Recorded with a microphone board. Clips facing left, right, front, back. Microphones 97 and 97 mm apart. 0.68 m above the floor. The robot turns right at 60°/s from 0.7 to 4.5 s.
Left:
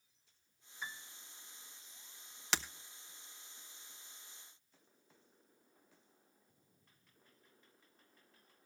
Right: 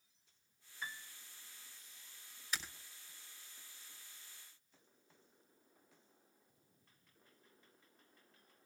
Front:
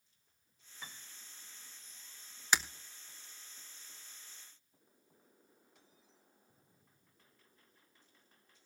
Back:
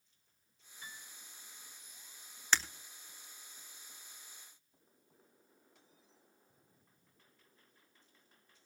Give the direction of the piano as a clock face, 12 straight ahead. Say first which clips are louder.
Even, even; 12 o'clock.